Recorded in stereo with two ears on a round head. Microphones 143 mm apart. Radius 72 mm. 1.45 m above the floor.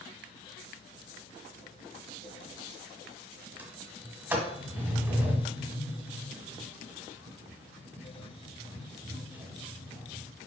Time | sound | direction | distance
3.6 | a sliding door | 10° right (ahead or behind) | 1.5 m